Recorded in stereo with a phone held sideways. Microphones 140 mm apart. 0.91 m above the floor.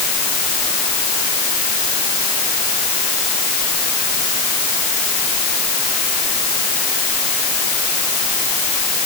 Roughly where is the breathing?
No breathing in this recording.